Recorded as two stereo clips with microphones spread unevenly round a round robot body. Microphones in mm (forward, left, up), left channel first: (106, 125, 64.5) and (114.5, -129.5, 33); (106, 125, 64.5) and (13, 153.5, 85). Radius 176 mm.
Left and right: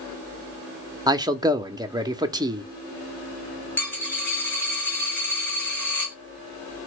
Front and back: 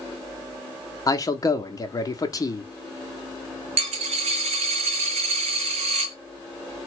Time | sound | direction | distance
1.1 | a man speaking | 25° right | 0.8 m
3.8 | a dropped coin | 175° left | 0.6 m